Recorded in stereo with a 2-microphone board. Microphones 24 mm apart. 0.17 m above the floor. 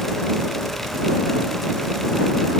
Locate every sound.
Only background noise.